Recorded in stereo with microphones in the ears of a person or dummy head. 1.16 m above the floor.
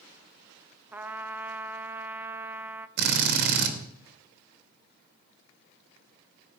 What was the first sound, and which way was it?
A trumpet, 10° right (ahead or behind).